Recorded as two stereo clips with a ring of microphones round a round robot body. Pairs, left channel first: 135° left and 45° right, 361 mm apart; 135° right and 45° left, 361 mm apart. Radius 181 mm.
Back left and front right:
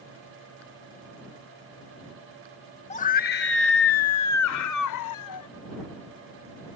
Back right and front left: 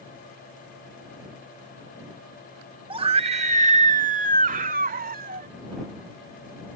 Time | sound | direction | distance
2.9 | a scream | 95° left | ?